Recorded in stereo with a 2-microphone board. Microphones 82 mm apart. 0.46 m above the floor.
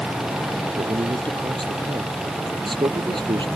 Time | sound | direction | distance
0.8 | a man speaking | 85° right | ?